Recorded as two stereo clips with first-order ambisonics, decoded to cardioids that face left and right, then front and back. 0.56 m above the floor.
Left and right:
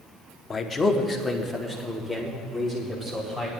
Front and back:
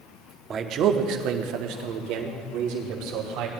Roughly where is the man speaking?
Behind left.